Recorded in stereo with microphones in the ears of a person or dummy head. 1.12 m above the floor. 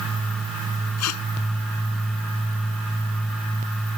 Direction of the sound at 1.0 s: 85° left.